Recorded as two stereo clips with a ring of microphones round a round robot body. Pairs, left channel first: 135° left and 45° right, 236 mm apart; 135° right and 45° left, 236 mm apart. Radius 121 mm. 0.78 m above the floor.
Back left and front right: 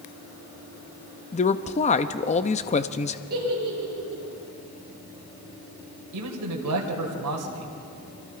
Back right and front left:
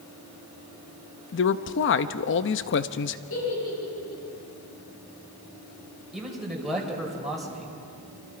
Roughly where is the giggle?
Right.